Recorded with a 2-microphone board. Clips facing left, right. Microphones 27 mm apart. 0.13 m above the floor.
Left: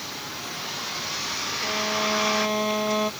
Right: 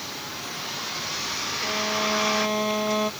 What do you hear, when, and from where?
0.0 s a vehicle: centre (ahead or behind)
1.6 s a violin: centre (ahead or behind)